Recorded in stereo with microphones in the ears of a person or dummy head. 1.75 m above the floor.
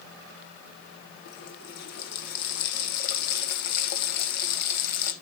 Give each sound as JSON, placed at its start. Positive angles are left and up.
{"t": 1.2, "sound": "a running tap", "side_deg": 50, "distance_m": 1.5}